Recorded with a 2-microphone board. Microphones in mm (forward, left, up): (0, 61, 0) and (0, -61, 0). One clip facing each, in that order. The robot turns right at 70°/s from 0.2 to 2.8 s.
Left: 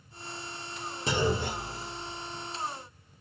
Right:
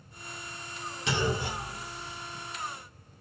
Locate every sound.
1.1 s a clunk: 40° left (ahead or behind), 1.8 m; by 2.5 s 15° left (ahead or behind), 1.8 m